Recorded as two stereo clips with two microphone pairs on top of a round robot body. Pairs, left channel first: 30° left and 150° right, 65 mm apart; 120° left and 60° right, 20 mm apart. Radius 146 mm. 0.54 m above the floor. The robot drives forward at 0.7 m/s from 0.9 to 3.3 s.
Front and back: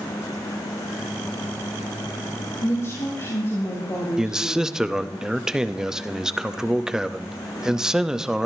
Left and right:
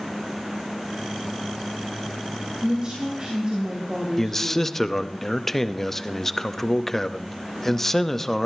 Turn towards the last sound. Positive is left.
turn(degrees=155)